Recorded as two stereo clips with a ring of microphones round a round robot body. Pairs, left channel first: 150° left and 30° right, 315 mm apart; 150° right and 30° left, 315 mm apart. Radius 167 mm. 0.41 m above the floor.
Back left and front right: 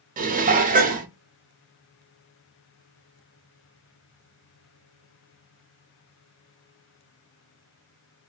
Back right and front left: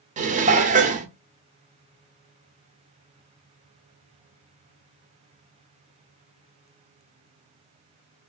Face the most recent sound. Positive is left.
turn(degrees=-5)